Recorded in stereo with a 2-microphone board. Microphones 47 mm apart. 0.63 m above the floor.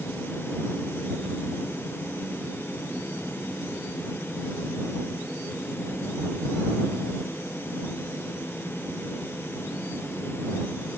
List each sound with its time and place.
Only background noise.